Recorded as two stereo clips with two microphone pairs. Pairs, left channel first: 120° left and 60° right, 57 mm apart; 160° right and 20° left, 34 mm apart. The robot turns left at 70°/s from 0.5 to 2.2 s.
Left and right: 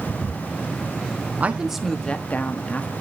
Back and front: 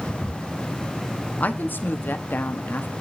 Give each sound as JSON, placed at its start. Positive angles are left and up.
{"t": 1.4, "sound": "a woman speaking", "azimuth_deg": -120, "distance_m": 1.0}